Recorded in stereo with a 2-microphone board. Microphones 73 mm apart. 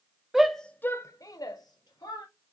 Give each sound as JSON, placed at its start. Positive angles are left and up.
{"t": 0.3, "sound": "a shout", "side_deg": -5, "distance_m": 0.5}